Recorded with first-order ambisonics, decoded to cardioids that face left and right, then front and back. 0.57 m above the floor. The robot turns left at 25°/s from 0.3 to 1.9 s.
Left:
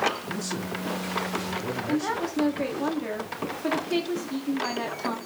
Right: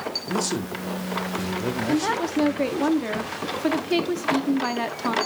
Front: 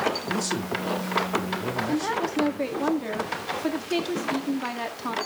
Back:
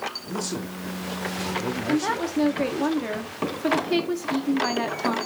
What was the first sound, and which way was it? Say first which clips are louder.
A man speaking: right 5 dB, front 3 dB; 80° right.